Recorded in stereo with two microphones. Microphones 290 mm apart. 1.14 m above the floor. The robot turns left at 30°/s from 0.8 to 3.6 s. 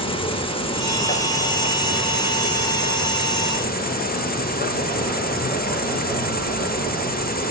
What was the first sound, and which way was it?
An insect, 150° left.